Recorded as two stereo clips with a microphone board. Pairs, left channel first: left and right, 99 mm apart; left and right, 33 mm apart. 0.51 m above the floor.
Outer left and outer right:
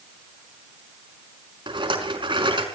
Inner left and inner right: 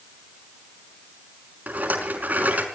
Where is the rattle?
55° right (ahead or behind), 5 m.